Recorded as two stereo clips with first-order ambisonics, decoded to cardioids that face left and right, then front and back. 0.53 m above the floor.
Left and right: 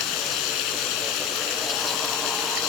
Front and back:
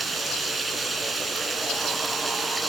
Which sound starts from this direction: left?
Running water, at 0.0 s.